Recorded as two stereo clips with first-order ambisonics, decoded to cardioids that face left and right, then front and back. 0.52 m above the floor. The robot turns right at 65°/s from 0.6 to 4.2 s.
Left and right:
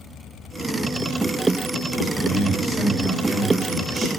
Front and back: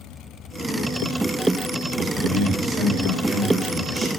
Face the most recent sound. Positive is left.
turn(degrees=-95)